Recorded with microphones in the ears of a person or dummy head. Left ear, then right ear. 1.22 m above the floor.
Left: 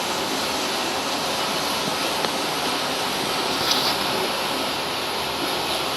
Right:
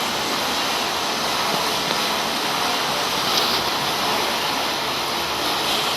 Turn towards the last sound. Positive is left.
turn(degrees=-50)  # may be behind; listen again after turning